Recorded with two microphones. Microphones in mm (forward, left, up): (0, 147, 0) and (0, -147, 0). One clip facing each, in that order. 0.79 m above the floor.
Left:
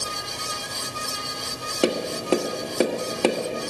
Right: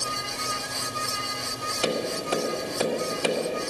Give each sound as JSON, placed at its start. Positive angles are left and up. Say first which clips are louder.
{"t": 1.8, "sound": "tapping", "louder": "left 5 dB", "side_deg": 65, "distance_m": 1.3}